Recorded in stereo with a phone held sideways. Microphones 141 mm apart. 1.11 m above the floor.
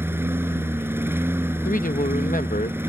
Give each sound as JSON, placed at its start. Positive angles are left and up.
{"t": 0.0, "sound": "a lawn mower", "side_deg": -15}
{"t": 1.6, "sound": "a man speaking", "side_deg": 70}